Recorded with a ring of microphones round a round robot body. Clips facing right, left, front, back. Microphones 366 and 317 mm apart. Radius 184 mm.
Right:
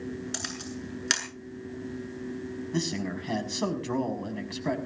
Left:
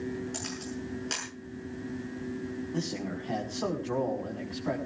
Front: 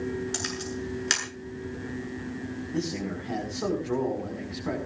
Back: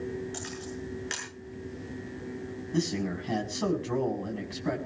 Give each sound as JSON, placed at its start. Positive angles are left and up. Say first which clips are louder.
{"t": 0.3, "sound": "a camera shutter", "louder": "left 1 dB, front 4 dB", "azimuth_deg": -45, "distance_m": 7.5}
{"t": 2.7, "sound": "a man speaking", "louder": "right 6 dB, back 2 dB", "azimuth_deg": -130, "distance_m": 5.5}